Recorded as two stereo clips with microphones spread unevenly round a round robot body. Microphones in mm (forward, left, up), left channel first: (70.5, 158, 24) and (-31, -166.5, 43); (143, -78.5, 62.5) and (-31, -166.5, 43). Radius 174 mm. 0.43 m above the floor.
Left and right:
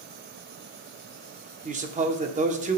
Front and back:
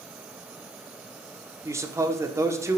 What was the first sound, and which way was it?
A man speaking, 140° right.